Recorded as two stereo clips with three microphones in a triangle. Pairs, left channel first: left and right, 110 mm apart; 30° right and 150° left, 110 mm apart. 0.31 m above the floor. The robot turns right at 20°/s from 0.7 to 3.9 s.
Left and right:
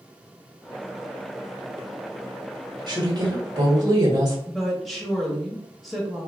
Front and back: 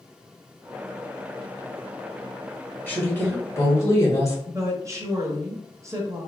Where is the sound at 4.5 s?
175° left, 0.9 m.